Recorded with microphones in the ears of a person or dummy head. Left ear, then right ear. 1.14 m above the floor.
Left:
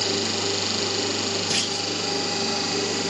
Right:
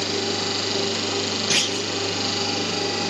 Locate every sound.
1.5 s a clunk: 20° right (ahead or behind)